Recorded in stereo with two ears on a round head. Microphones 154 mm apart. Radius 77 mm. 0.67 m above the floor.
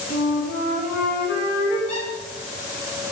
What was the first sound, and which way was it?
A flute, 55° left (ahead or behind).